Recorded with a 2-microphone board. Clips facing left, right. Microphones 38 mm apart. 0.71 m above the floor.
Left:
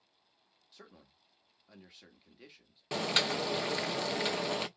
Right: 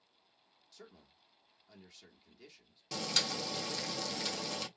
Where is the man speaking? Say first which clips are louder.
Even; 25° left (ahead or behind), 1.2 m.